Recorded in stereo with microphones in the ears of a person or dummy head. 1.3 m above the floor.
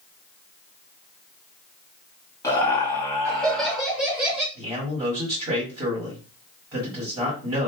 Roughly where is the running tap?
I don't hear a running tap.